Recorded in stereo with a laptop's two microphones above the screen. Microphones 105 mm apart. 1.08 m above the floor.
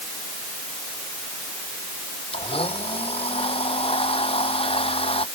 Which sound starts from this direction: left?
A blender, at 2.3 s.